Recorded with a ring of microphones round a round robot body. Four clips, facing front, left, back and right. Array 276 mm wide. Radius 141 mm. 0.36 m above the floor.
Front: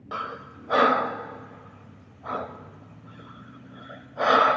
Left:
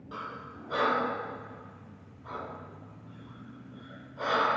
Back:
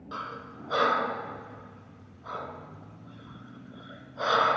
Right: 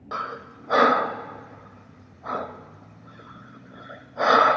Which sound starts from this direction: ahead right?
Breathing, at 0.1 s.